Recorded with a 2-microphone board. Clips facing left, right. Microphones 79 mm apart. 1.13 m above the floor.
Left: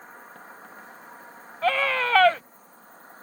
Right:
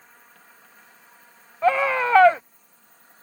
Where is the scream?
20° right (ahead or behind).